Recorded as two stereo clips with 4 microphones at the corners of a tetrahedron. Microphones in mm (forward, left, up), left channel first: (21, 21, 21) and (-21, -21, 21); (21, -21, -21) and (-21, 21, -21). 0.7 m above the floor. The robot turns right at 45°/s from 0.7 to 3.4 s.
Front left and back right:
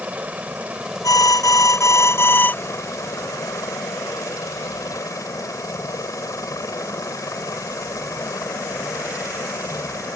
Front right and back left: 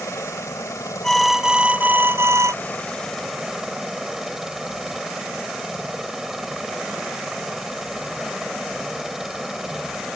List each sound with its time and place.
0.0 s a helicopter: 70° right; by 10.2 s 50° left
1.0 s an alarm: 35° left; by 2.5 s 105° left